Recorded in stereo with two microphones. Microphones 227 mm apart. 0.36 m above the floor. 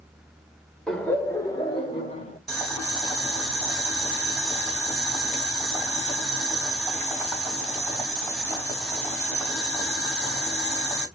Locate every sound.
0.9 s laughter: 5° left (ahead or behind), 0.9 m; by 2.4 s 30° left (ahead or behind), 1.4 m
2.5 s boiling: centre (ahead or behind), 2 m